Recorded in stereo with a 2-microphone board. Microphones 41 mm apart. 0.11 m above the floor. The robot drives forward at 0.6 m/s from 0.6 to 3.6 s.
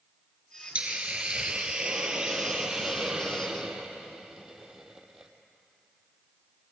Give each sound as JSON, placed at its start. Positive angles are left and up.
{"t": 0.8, "sound": "a hiss", "side_deg": -30, "distance_m": 1.2}